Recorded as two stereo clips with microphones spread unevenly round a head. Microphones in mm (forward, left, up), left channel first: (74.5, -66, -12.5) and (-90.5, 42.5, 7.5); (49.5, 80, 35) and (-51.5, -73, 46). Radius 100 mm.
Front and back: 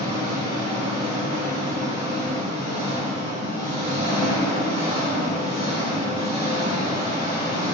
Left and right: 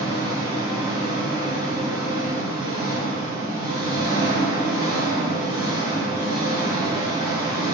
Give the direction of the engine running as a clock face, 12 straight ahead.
5 o'clock.